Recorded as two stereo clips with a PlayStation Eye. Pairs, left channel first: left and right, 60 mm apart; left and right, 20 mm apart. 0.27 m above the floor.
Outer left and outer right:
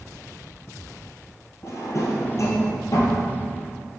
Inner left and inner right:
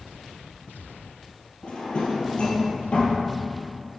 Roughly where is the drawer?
Left.